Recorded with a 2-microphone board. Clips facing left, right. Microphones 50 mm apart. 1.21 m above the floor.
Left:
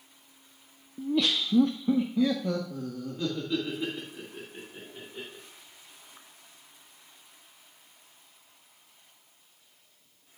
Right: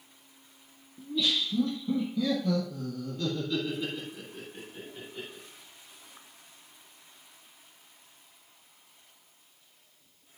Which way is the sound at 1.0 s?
45° left (ahead or behind).